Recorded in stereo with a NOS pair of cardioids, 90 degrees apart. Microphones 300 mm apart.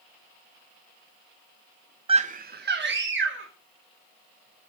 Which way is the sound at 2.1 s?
20° right.